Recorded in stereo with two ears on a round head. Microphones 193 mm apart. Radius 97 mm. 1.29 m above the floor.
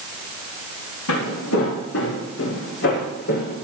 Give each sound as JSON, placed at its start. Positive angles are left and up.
{"t": 1.1, "sound": "footsteps", "side_deg": 75, "distance_m": 5.5}